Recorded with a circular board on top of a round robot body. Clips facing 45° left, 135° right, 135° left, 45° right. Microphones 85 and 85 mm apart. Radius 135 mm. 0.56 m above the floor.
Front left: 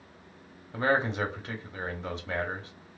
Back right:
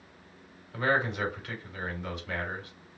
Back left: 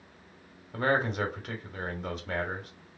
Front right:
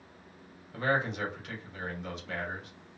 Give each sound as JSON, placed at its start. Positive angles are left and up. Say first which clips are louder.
{"t": 0.7, "sound": "a man speaking", "louder": "front left 1 dB, back left 3 dB", "azimuth_deg": 100, "distance_m": 1.2}